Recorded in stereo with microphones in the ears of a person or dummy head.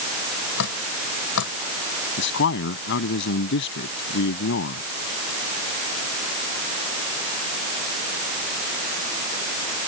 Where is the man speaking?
65° left (ahead or behind).